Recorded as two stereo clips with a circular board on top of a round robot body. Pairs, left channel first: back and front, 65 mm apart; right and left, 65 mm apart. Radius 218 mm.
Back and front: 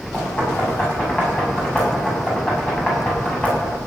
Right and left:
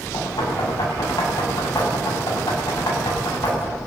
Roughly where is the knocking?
Right.